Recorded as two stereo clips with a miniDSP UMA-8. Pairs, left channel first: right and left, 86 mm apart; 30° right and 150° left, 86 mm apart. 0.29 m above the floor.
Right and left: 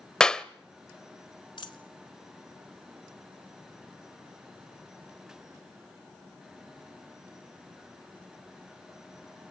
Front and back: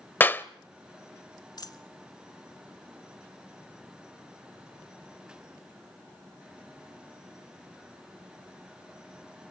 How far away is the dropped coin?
About 1.2 m.